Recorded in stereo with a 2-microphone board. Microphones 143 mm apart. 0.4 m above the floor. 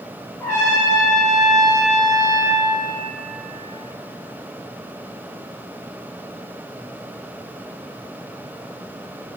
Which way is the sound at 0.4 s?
20° left (ahead or behind).